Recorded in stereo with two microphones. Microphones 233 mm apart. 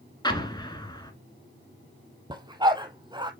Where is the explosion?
20° left (ahead or behind), 1.6 m.